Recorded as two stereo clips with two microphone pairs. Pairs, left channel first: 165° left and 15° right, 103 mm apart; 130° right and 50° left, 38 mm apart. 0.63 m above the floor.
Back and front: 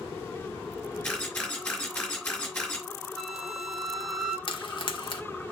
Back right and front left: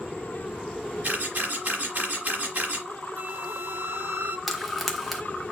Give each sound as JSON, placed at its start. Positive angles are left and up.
{"t": 1.0, "sound": "a camera shutter", "azimuth_deg": 90, "distance_m": 4.5}
{"t": 3.2, "sound": "a flute", "azimuth_deg": 75, "distance_m": 0.9}
{"t": 4.5, "sound": "frying", "azimuth_deg": 140, "distance_m": 1.3}